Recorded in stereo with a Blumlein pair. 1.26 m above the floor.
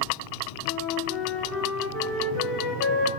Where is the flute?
30° left, 2.5 m.